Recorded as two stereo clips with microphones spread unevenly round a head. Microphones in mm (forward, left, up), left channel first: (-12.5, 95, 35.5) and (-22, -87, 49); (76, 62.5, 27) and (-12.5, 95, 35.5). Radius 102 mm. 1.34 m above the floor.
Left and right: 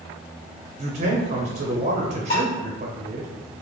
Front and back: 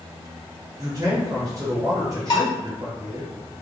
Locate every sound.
0.8 s a man speaking: 140° right, 0.7 m
2.3 s dishes clattering: 20° left, 1.2 m